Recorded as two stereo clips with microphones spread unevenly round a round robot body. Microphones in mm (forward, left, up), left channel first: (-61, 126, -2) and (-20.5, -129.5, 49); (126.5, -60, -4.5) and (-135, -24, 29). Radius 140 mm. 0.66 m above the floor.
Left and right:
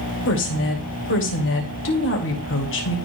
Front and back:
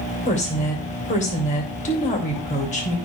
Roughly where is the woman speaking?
Ahead left.